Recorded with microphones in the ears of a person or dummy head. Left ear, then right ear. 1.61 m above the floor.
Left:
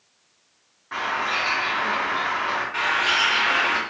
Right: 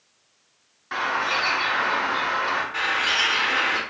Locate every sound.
0.9 s a bird: 25° right (ahead or behind), 0.6 m
2.7 s a bird: 15° left (ahead or behind), 0.7 m